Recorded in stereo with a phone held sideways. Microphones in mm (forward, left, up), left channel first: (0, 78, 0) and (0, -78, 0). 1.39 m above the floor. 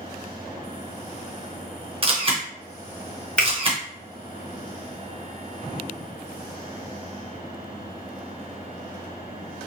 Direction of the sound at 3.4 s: 5° left (ahead or behind).